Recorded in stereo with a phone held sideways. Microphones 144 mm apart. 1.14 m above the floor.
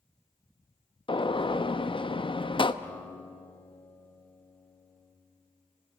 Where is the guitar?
10° left (ahead or behind), 1.7 m.